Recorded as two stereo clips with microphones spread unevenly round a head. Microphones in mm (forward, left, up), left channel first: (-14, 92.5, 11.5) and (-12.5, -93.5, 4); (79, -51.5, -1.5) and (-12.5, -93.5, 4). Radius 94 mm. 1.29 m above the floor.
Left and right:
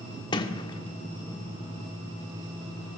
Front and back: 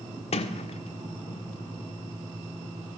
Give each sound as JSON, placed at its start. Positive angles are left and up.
{"t": 0.3, "sound": "a sliding door", "azimuth_deg": 25, "distance_m": 1.5}